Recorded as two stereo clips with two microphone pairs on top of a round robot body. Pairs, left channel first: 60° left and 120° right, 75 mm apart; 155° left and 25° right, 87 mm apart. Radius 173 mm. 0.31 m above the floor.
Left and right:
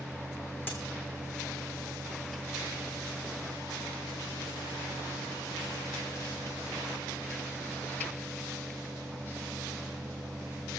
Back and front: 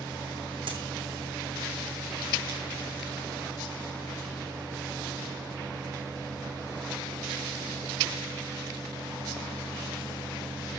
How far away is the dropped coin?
About 3 m.